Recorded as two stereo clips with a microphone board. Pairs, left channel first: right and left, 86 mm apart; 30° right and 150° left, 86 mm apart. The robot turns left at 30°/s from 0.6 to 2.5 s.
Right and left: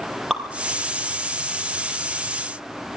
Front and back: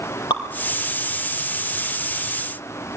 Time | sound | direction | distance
0.3 | dripping | straight ahead | 3.5 m